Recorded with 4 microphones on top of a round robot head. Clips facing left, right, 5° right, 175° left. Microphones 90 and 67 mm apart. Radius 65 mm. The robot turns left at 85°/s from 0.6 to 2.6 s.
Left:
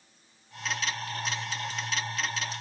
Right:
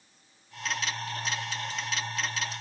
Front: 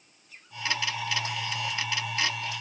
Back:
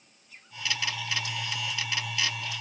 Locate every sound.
Only background noise.